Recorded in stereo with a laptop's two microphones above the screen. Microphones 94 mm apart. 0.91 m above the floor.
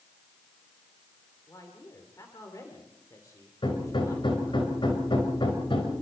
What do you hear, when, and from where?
1.5 s a man speaking: 40° left (ahead or behind), 3 m
3.6 s hammering: 65° left (ahead or behind), 4.5 m